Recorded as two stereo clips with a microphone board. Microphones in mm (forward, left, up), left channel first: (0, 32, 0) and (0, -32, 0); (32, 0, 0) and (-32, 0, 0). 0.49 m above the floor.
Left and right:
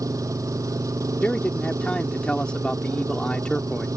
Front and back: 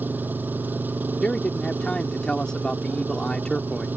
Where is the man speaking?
50° left.